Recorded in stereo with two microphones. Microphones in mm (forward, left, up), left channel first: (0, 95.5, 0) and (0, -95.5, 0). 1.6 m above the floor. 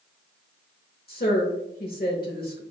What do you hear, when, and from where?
1.1 s a woman speaking: 55° left (ahead or behind), 0.7 m